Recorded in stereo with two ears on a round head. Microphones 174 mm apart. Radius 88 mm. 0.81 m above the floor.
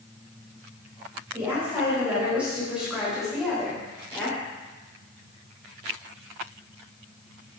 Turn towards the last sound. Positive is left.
turn(degrees=5)  # may be behind; listen again after turning